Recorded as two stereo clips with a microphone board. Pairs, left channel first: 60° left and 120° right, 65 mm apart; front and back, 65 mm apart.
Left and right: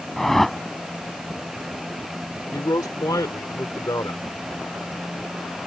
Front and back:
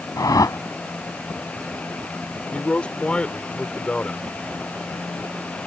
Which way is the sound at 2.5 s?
70° left.